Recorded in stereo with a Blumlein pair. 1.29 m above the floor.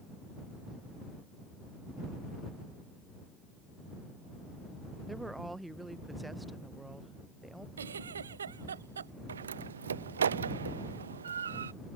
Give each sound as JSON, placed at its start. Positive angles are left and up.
{"t": 5.1, "sound": "a woman speaking", "azimuth_deg": -5}
{"t": 7.8, "sound": "a giggle", "azimuth_deg": -70}
{"t": 9.3, "sound": "a door slam", "azimuth_deg": -70}